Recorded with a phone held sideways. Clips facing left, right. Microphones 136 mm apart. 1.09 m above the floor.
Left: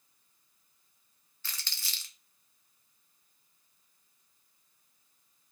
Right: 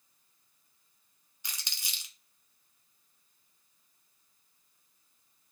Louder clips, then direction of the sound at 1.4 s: Even; 15° right (ahead or behind).